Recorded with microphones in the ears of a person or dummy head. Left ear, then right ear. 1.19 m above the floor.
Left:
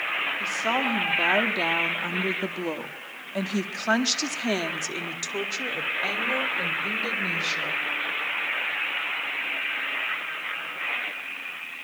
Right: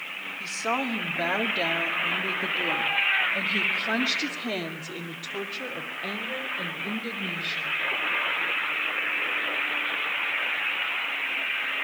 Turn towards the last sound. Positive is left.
turn(degrees=75)  # may be behind; listen again after turning